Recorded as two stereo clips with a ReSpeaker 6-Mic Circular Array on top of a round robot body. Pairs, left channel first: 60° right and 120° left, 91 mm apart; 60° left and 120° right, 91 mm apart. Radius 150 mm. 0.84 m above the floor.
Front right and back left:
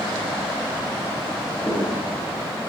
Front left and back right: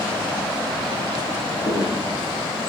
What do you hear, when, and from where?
1.6 s footsteps: 35° left, 1.2 m